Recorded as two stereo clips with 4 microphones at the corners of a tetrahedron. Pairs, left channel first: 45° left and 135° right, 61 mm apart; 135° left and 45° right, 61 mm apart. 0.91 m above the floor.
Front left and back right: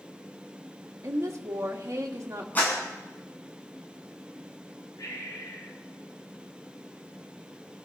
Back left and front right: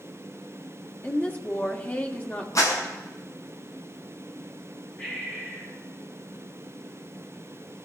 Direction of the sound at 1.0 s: 165° right.